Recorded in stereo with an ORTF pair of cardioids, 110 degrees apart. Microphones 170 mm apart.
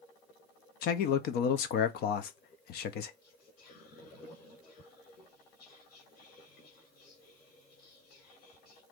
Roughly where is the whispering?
Left.